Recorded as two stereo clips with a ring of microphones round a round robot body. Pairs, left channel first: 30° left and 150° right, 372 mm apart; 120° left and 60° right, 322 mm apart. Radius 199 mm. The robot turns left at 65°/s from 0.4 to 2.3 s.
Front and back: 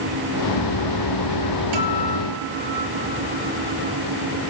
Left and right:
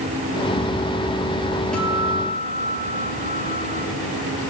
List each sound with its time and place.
1.7 s a guitar: 150° right, 3.5 m; by 3.8 s 170° left, 3.5 m